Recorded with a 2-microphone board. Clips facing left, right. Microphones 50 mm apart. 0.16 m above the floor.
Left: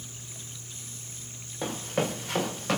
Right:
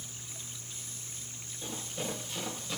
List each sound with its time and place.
1.6 s running footsteps: 70° left (ahead or behind), 5 m; by 2.8 s 75° left (ahead or behind), 5.5 m